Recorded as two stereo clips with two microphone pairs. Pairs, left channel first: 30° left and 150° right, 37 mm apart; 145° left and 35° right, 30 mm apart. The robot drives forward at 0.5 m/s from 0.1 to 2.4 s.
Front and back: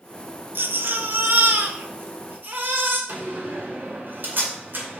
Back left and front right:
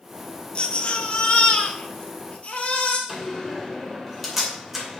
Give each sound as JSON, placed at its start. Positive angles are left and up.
{"t": 0.6, "sound": "a baby crying", "azimuth_deg": -165, "distance_m": 0.7}
{"t": 3.1, "sound": "a door slam", "azimuth_deg": -120, "distance_m": 2.5}